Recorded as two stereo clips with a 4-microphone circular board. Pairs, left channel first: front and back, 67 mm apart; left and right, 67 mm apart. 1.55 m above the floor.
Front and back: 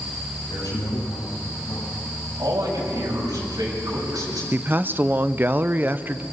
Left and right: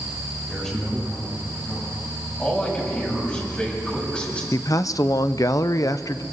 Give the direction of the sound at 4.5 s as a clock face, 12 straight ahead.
8 o'clock.